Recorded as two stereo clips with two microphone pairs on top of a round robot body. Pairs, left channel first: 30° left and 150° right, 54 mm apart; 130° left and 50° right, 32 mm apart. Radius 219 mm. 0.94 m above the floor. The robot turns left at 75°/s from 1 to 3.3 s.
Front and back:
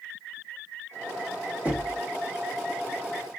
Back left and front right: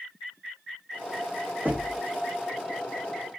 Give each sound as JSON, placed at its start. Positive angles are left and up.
{"t": 1.6, "sound": "knocking", "azimuth_deg": -90, "distance_m": 1.5}